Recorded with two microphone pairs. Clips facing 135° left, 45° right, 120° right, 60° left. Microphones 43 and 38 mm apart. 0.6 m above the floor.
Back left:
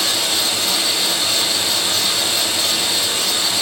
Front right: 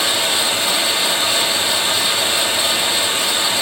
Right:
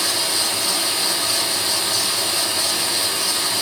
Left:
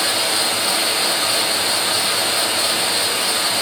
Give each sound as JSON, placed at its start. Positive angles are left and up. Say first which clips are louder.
{"t": 0.0, "sound": "running water", "louder": "front right 2 dB, left 3 dB", "azimuth_deg": 20, "distance_m": 2.5}